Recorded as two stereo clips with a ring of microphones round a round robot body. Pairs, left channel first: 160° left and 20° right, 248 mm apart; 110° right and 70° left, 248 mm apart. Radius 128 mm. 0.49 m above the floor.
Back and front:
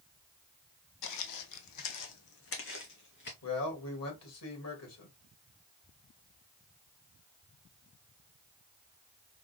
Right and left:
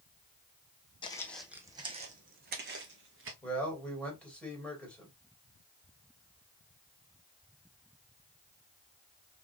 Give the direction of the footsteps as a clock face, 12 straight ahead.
6 o'clock.